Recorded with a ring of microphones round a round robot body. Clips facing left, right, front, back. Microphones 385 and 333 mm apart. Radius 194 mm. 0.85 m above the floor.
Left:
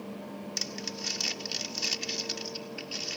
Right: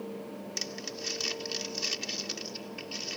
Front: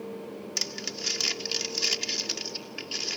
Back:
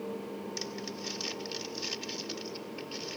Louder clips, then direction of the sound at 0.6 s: Even, even; 10° left.